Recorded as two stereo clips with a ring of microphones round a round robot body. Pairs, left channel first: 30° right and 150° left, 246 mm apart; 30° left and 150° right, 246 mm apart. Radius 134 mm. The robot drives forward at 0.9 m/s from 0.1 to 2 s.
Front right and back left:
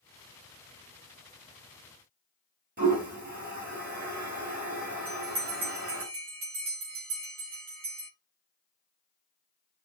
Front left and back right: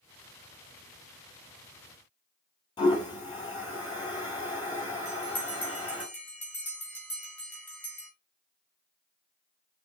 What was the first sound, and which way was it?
A toilet flushing, 105° left.